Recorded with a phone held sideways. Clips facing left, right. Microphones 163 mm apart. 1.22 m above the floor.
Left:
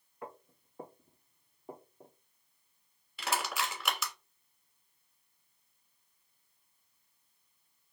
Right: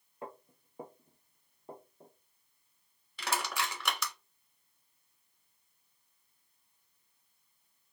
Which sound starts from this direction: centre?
Crushing, at 3.2 s.